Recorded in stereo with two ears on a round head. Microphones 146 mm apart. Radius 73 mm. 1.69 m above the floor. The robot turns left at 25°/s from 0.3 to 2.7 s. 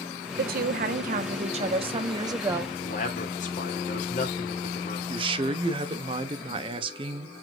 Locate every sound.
0.4 s a woman speaking: 105° right, 1.3 m; by 2.7 s 165° right, 1.3 m
2.8 s a man speaking: 45° left (ahead or behind), 2.5 m
5.1 s a man speaking: 30° right (ahead or behind), 1.1 m